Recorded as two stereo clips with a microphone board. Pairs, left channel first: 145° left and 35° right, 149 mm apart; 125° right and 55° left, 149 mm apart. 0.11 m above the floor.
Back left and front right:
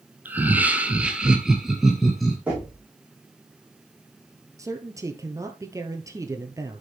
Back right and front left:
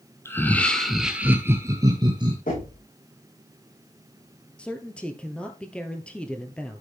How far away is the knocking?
About 7.5 m.